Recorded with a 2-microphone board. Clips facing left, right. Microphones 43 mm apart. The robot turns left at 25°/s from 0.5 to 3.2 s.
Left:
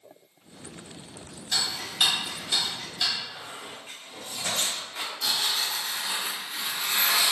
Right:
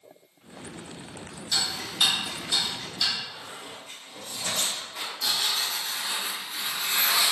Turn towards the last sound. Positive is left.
turn(degrees=35)  # may be behind; listen again after turning